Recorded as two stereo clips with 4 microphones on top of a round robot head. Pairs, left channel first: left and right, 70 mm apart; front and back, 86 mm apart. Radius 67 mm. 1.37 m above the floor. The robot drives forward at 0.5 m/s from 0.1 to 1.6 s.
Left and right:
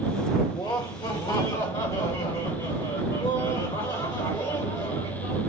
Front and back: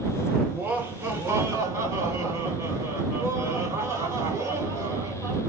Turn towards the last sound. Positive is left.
turn(degrees=125)